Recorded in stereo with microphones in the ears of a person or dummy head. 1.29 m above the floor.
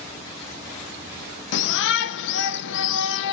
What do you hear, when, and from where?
1.5 s a shout: 65° left (ahead or behind), 0.9 m